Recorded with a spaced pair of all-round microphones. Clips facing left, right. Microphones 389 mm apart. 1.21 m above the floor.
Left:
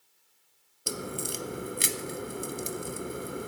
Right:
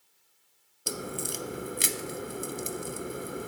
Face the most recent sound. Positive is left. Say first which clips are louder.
# even
turn(degrees=0)  # may be behind; listen again after turning